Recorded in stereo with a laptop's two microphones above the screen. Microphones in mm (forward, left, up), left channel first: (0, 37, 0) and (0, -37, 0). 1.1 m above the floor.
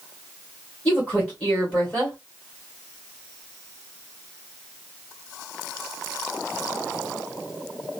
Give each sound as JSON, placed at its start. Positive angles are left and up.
{"t": 0.8, "sound": "a woman speaking", "side_deg": 25, "distance_m": 1.4}